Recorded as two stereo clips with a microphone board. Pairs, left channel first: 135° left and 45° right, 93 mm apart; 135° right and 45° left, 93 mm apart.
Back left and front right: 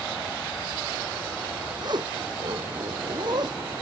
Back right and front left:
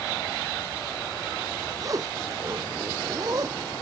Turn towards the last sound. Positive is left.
turn(degrees=-5)